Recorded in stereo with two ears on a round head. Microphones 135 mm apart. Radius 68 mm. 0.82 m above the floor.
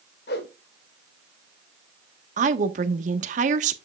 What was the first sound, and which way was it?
A whoosh, 80° left.